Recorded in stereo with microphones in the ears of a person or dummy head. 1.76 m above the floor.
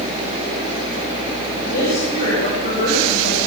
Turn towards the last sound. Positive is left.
turn(degrees=50)  # may be behind; listen again after turning